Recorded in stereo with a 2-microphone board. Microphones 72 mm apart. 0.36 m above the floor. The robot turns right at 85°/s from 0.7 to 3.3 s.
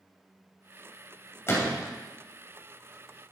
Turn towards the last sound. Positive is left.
turn(degrees=-160)